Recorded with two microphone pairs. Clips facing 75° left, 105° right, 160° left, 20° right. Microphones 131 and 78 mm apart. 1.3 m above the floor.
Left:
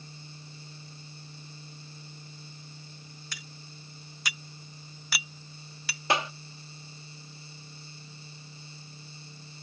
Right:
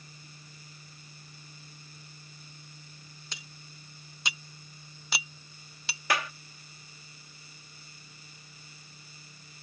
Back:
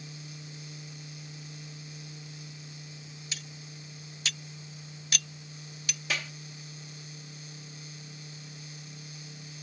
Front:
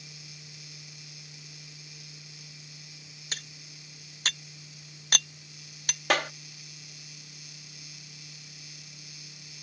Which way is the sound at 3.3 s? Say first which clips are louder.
Left 3 dB, front 4 dB; 45° right.